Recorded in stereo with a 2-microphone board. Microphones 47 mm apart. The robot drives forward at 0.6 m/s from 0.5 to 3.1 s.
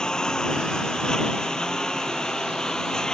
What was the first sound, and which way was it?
A lawn mower, 15° left (ahead or behind).